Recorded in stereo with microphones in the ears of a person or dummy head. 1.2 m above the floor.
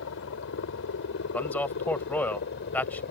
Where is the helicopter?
65° left (ahead or behind); by 3.1 s 55° left (ahead or behind).